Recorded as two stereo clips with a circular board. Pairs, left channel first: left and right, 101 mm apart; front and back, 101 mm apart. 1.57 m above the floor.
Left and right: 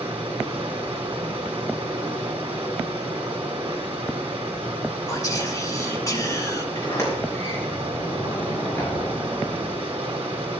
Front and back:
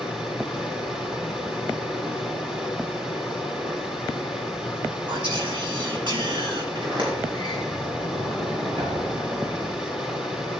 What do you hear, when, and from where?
0.0 s running water: 100° right, 3 m
5.1 s whispering: 145° left, 2 m
6.8 s a sliding door: 155° left, 5 m